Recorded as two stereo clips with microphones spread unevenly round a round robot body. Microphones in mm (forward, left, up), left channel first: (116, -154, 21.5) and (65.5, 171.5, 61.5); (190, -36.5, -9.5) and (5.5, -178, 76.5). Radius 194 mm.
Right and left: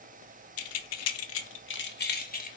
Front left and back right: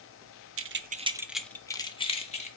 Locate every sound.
0.6 s keys jangling: 100° right, 0.5 m; by 2.5 s 20° right, 1.3 m